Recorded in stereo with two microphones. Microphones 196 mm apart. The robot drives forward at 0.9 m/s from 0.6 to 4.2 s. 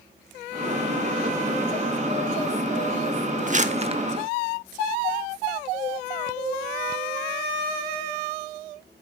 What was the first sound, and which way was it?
Crumpling, 40° right (ahead or behind).